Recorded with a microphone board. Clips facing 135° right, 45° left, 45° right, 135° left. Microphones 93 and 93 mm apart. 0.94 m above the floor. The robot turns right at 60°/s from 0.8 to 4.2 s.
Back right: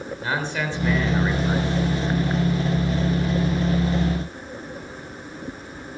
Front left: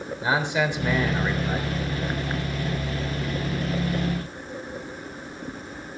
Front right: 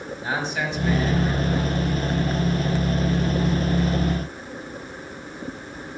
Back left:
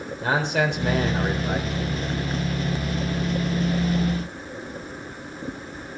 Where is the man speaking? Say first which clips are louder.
Front left 3 dB, back left 5 dB; 120° left, 3.5 m; by 1.7 s 175° left, 3.5 m.